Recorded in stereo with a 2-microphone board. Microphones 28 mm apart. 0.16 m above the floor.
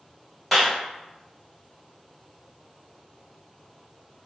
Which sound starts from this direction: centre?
A clap, at 0.5 s.